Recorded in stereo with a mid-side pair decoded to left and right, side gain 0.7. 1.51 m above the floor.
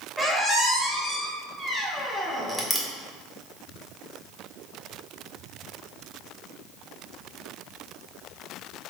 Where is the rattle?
No rattle in this recording.